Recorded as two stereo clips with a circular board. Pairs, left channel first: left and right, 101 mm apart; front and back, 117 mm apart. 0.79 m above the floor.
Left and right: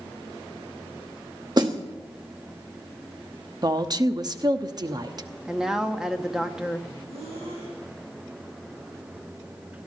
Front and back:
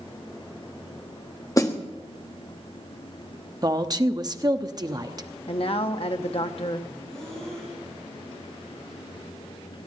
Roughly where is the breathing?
Right.